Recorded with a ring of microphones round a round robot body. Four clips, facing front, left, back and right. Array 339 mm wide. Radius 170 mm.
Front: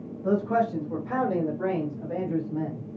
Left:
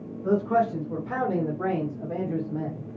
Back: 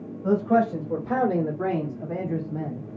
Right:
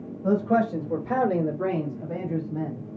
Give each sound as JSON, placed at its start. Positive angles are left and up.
{"t": 0.2, "sound": "a man speaking", "azimuth_deg": -130, "distance_m": 1.5}